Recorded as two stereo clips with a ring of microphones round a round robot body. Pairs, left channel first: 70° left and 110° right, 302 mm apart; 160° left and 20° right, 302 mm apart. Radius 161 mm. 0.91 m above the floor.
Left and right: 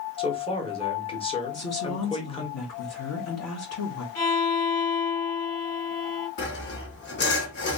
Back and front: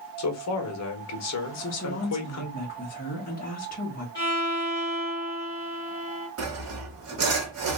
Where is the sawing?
15° left, 1.3 m.